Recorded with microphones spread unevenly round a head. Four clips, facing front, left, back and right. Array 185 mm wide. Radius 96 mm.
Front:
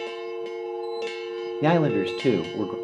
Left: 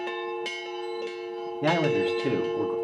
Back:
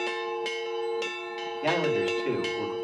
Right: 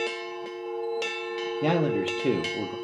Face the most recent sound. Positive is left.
turn(degrees=-10)